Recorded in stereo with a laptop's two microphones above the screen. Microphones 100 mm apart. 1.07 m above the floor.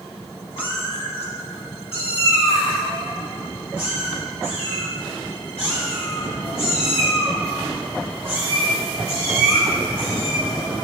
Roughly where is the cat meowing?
Left.